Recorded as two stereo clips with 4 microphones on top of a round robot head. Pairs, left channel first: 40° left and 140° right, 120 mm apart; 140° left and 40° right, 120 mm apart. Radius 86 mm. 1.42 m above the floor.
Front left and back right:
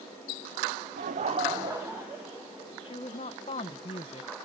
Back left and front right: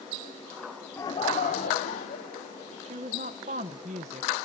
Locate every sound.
1.0 s laughter: 150° right, 0.8 m; by 3.2 s 135° left, 3 m
2.9 s a woman speaking: 5° right, 0.7 m